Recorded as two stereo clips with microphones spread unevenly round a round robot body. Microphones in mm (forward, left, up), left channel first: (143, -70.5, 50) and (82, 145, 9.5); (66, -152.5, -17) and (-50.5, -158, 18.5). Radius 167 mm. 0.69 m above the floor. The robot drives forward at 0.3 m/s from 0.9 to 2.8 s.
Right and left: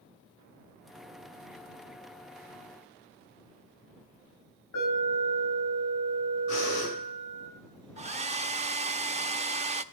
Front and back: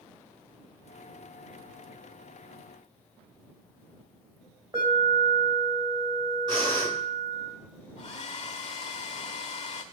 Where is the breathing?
125° right, 7.5 m.